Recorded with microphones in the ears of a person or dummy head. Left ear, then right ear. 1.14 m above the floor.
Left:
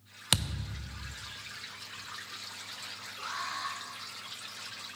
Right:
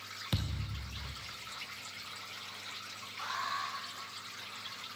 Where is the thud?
30° left (ahead or behind), 0.6 m.